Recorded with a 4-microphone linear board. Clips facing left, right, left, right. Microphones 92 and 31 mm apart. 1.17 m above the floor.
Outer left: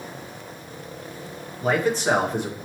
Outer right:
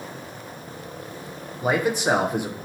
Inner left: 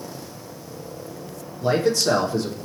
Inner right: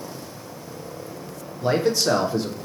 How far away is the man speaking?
About 0.6 m.